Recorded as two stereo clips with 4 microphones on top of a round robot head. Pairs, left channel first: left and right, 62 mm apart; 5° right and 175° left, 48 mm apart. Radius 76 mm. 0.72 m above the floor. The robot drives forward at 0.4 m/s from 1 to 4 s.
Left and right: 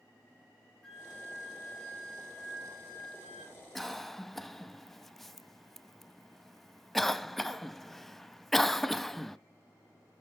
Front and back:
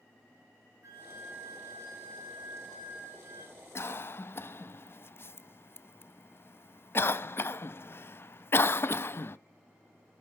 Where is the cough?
5° left, 0.7 m.